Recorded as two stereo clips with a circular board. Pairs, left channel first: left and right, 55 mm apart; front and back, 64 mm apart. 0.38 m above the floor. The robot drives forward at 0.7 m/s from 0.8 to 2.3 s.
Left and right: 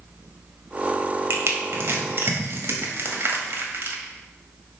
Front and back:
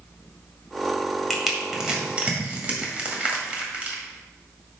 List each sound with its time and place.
1.3 s crushing: 90° right, 1.8 m; by 4.0 s 115° right, 1.9 m